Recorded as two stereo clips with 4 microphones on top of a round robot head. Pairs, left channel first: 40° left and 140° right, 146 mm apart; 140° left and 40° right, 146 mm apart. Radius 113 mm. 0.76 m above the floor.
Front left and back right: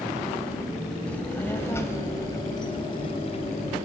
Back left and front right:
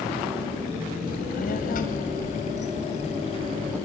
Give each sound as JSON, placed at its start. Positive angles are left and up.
{"t": 1.1, "sound": "a child speaking", "azimuth_deg": 120, "distance_m": 4.0}